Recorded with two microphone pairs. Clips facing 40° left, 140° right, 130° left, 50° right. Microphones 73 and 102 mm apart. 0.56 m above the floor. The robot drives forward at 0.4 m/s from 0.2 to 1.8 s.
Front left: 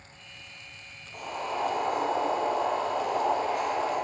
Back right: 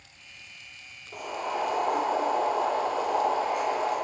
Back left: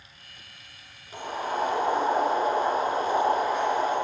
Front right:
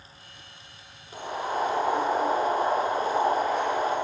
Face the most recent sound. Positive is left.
turn(degrees=-140)